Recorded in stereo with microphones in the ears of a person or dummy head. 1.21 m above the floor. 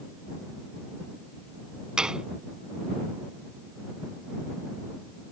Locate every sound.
2.0 s a gunshot: 5° right (ahead or behind)